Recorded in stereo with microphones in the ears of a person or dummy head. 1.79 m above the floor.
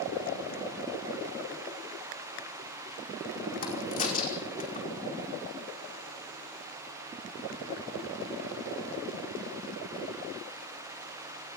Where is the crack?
40° left (ahead or behind), 5 m.